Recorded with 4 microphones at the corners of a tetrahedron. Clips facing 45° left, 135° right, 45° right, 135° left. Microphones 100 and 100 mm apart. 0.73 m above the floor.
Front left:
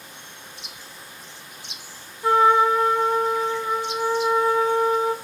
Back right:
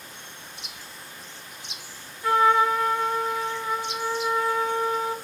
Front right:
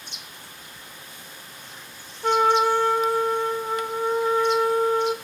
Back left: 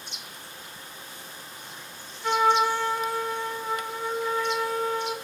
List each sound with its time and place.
2.2 s a trumpet: 15° right, 0.7 m